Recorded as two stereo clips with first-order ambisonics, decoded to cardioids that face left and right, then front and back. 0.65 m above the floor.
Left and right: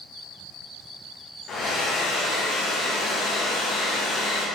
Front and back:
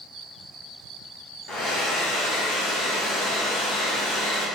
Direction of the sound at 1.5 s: 35° left.